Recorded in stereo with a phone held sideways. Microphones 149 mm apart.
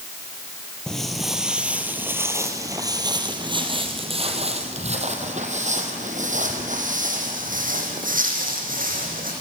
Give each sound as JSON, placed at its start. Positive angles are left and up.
{"t": 0.9, "sound": "footsteps", "side_deg": 5, "distance_m": 2.5}